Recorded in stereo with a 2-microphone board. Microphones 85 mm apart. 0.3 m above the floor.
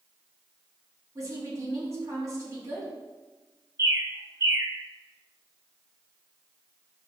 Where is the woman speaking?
40° right (ahead or behind), 2 m.